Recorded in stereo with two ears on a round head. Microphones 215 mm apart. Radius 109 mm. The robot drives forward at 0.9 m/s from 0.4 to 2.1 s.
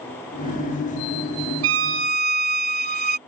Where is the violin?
55° right (ahead or behind); by 3.2 s 40° right (ahead or behind).